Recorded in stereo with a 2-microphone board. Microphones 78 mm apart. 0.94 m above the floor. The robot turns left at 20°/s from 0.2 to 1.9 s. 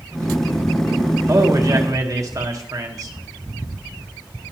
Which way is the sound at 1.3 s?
40° right (ahead or behind).